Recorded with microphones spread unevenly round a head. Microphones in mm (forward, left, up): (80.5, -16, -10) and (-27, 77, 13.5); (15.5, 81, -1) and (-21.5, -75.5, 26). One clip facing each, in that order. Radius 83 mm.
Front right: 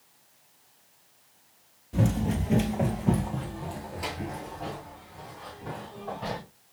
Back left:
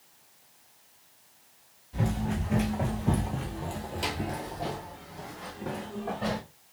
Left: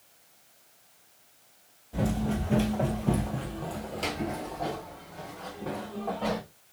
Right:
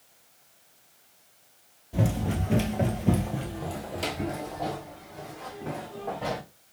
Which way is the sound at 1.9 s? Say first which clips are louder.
Front right 4 dB, even; 55° right.